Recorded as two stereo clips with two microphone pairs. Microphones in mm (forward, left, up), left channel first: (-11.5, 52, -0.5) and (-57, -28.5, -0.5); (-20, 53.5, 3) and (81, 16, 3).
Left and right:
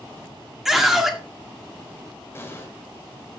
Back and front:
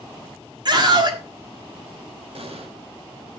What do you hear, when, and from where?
0.7 s a scream: 35° right, 1.6 m
2.4 s an explosion: straight ahead, 1.7 m